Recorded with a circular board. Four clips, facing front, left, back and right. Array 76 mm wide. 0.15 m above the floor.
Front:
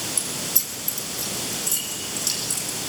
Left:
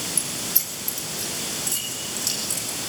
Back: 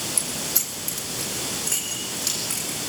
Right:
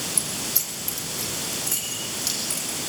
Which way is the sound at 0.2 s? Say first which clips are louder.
Even, back 1 dB; 170° right.